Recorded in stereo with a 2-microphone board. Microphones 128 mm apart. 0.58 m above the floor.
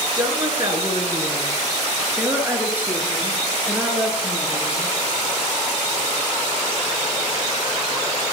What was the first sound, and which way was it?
A woman speaking, 30° right (ahead or behind).